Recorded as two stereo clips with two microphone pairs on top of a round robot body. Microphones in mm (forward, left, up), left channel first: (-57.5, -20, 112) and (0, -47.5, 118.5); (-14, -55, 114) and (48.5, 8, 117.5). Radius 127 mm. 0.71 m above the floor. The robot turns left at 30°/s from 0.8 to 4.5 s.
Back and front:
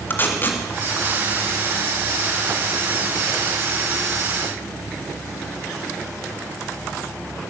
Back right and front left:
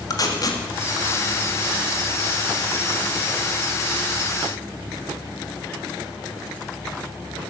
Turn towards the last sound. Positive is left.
turn(degrees=85)